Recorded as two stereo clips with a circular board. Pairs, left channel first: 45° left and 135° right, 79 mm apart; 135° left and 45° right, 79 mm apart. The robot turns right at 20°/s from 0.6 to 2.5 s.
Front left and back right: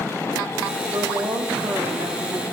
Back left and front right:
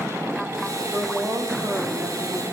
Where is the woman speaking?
115° right, 1.8 m; by 2.4 s 85° right, 1.8 m.